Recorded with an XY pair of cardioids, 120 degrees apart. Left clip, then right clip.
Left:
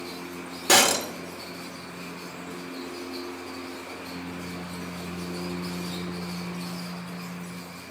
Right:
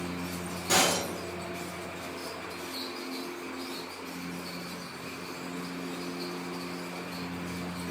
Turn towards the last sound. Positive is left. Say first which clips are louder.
# left 6 dB
turn(degrees=70)